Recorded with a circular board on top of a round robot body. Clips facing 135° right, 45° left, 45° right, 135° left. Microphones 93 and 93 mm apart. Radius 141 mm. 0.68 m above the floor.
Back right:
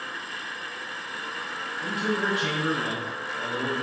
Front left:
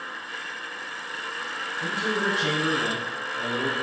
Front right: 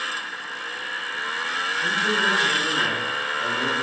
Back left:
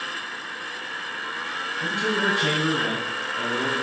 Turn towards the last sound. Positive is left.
turn(degrees=115)